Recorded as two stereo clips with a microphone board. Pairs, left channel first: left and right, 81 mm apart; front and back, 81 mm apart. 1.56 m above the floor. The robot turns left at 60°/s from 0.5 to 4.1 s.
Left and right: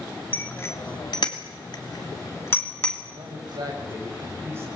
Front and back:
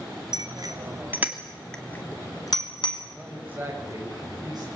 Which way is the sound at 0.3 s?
155° left.